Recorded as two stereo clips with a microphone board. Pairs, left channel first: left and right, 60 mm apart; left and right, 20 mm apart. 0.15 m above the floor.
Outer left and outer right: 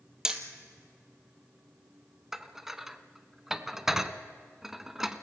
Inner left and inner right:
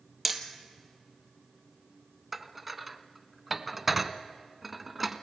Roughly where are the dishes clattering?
Centre.